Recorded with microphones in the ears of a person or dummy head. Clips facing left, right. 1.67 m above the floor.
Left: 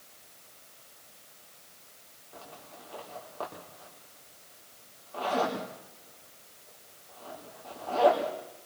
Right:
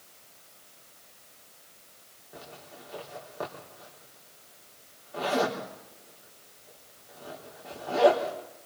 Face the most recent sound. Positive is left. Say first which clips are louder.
# right 2 dB
turn(degrees=-15)  # may be behind; listen again after turning